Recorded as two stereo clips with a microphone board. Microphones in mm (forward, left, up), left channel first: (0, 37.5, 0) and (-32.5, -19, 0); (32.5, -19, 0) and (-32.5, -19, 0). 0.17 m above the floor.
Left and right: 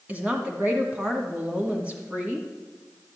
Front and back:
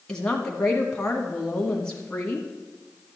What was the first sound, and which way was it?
A woman speaking, 65° right.